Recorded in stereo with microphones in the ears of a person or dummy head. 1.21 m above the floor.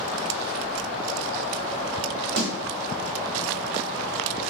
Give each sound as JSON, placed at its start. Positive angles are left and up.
{"t": 0.6, "sound": "keys jangling", "side_deg": -60, "distance_m": 2.5}
{"t": 2.4, "sound": "a snare drum", "side_deg": -60, "distance_m": 2.5}